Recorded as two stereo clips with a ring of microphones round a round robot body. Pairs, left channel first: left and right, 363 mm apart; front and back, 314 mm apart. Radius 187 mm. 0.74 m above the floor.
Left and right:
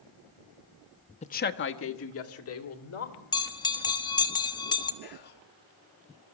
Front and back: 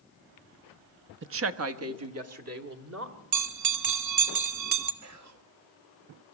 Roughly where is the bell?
Behind.